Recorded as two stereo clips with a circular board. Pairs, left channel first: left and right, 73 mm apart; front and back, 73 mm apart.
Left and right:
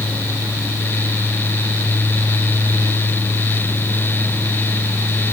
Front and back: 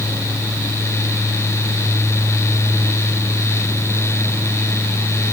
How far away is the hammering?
I don't hear hammering.